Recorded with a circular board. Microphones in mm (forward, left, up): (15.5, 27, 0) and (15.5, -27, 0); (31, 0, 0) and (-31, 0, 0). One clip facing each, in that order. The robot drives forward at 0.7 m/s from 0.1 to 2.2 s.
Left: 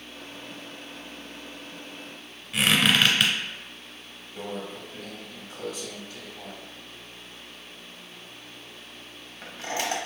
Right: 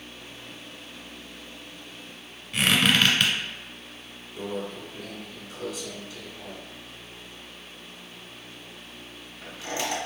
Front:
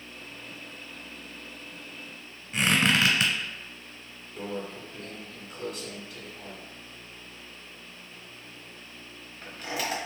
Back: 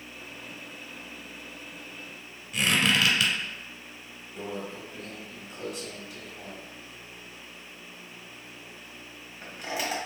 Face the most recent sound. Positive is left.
turn(degrees=125)